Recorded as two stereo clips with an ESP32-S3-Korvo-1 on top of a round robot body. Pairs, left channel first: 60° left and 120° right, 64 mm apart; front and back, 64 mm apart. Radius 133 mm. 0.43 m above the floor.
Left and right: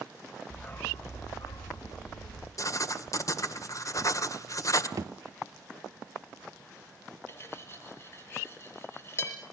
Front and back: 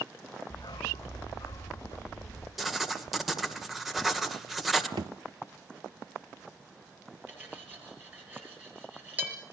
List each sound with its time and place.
0.5 s a dog barking: 10° right, 1.6 m; by 2.5 s 55° left, 3 m
2.6 s writing: 95° left, 2.0 m
5.0 s a thud: 160° right, 0.8 m
7.3 s cutlery clinking: 115° left, 5.5 m